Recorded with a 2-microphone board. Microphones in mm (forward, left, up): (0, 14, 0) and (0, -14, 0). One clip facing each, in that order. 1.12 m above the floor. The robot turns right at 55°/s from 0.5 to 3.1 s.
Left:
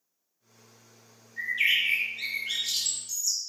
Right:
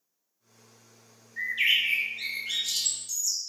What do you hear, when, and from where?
1.4 s a bird: 50° right, 0.9 m; by 3.4 s 45° left, 0.9 m